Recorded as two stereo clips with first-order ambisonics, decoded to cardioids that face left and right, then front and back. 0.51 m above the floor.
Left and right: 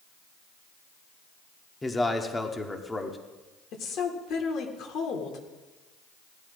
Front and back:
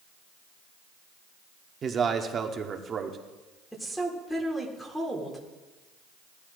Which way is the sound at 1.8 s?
160° left.